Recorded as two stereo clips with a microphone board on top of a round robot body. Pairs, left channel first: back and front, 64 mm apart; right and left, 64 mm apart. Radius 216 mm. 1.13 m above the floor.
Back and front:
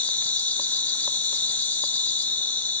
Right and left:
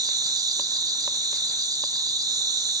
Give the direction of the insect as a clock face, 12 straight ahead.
8 o'clock.